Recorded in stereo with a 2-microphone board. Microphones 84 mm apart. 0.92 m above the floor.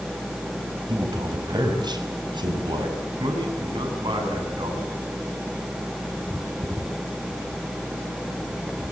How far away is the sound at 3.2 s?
About 8 m.